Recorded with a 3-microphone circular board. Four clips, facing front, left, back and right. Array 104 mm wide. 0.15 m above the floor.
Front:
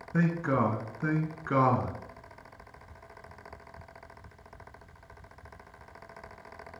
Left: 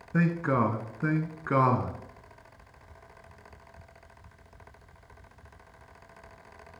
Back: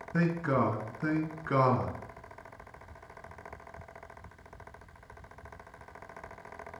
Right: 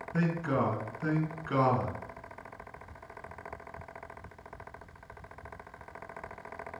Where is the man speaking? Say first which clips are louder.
Left 4 dB, front 1 dB; 75° left, 1.2 m.